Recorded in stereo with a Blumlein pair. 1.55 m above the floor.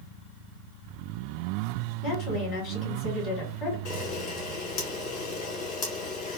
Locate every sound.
2.0 s a woman speaking: 30° left, 1.7 m
3.9 s a camera shutter: 40° left, 1.5 m